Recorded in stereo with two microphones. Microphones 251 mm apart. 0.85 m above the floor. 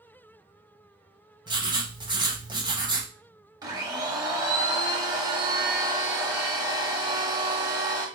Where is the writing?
15° right (ahead or behind), 0.7 m.